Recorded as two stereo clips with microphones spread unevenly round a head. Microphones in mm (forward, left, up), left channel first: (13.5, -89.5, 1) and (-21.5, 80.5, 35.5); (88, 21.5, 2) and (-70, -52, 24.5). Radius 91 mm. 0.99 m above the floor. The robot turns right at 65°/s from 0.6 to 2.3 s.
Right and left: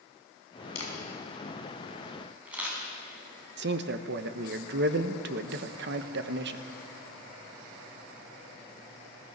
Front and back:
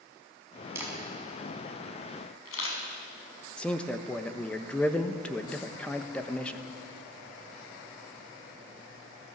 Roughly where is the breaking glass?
I don't hear breaking glass.